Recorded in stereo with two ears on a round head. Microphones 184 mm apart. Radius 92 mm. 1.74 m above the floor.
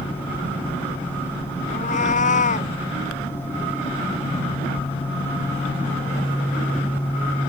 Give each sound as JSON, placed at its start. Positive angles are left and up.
{"t": 1.7, "sound": "a cat meowing", "side_deg": 40}